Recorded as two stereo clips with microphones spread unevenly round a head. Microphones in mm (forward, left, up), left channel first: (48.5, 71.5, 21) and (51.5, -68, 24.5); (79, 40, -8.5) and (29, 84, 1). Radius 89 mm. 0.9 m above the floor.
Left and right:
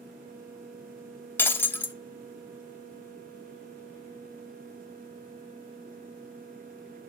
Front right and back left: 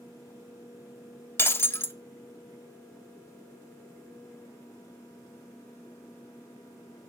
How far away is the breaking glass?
About 0.7 m.